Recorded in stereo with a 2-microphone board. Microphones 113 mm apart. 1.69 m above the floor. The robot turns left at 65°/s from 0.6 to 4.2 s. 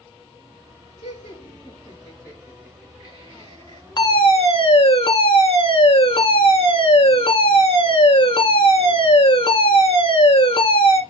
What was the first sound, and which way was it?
Laughter, 90° left.